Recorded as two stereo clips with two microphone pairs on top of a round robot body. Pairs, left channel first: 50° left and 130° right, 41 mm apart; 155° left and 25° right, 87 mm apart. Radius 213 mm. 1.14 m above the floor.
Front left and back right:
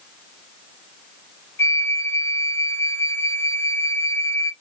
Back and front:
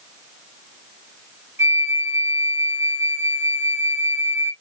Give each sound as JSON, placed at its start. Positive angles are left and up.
{"t": 1.6, "sound": "a flute", "azimuth_deg": 35, "distance_m": 0.9}